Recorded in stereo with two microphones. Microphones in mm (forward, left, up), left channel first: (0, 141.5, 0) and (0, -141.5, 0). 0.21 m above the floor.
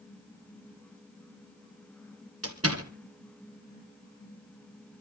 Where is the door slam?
55° right (ahead or behind), 3.5 m.